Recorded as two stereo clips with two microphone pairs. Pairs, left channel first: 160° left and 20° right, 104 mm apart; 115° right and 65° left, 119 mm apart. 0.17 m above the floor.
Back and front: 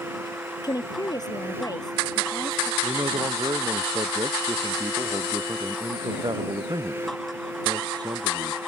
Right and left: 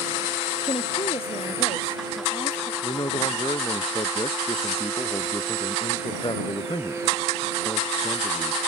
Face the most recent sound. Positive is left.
turn(degrees=-70)